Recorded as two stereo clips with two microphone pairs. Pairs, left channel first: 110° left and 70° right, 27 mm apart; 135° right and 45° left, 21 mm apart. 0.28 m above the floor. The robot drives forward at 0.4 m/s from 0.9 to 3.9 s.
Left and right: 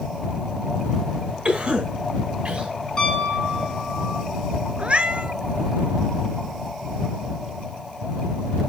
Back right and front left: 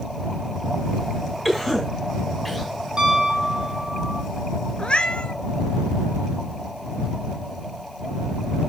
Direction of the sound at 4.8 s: 110° right.